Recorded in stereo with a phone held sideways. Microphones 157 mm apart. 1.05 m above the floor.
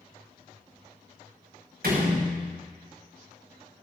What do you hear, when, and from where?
1.8 s a door slam: 90° right, 5 m